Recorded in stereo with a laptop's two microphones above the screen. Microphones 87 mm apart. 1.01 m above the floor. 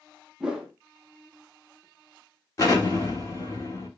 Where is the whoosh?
5° right (ahead or behind), 0.7 m.